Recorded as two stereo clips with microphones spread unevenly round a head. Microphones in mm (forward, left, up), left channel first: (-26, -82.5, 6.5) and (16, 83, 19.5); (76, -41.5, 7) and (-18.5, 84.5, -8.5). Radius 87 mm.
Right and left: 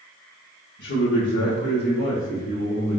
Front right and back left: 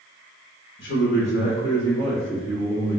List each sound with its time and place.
0.8 s a man speaking: 90° right, 0.8 m; by 3.0 s 160° right, 1.2 m